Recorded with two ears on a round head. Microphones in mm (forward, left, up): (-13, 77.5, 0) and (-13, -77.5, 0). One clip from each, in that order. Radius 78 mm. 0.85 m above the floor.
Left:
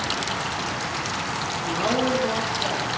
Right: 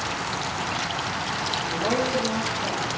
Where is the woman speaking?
40° left (ahead or behind), 1.8 m; by 2.9 s 35° left (ahead or behind), 2.5 m.